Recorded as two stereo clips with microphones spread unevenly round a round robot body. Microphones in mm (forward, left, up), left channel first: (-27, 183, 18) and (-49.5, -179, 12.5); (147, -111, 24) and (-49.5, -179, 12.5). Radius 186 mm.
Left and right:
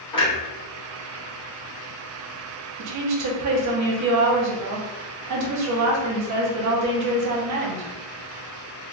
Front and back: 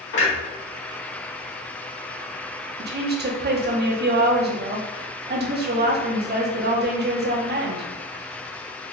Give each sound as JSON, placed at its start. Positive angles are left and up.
{"t": 0.1, "sound": "a clunk", "azimuth_deg": 10, "distance_m": 1.7}
{"t": 2.8, "sound": "a woman speaking", "azimuth_deg": -130, "distance_m": 0.9}